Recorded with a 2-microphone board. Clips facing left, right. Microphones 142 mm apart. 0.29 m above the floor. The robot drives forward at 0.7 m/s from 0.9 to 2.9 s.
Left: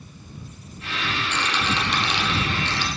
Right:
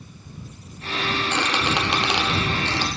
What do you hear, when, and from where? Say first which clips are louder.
1.3 s a squeak: right 2 dB; 70° right (ahead or behind), 1.2 m; by 2.9 s 60° right (ahead or behind), 1.4 m